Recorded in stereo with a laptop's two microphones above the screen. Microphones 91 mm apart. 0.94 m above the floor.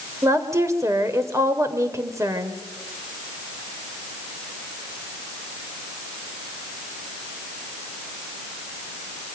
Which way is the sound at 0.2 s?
35° right (ahead or behind).